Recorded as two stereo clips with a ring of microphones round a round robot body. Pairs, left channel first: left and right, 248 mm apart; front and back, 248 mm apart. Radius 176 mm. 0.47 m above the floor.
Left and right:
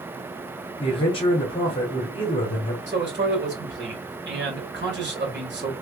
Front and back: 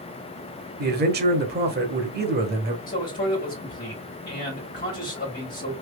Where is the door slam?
No door slam in this recording.